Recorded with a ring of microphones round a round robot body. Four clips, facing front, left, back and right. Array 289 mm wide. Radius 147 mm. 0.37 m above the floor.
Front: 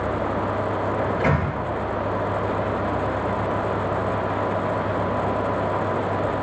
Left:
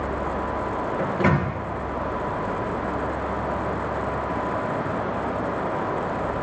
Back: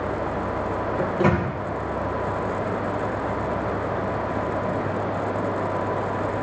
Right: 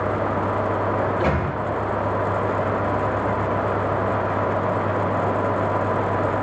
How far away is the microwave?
About 3.5 m.